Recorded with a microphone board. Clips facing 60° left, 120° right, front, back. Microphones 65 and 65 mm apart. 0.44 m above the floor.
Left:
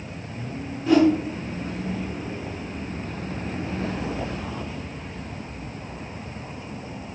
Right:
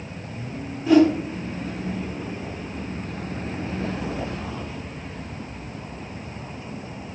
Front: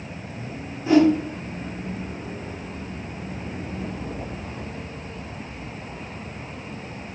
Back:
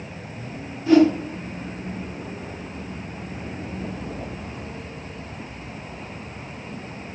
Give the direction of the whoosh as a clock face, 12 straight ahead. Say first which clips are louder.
Right 2 dB, back 1 dB; 1 o'clock.